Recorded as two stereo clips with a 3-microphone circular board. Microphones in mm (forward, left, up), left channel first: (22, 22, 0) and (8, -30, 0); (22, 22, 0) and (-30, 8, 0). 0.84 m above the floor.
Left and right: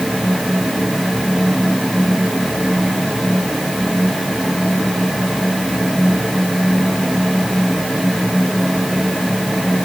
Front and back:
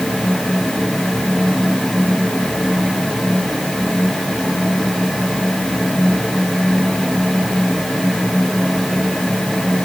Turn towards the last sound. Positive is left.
No sound to turn to.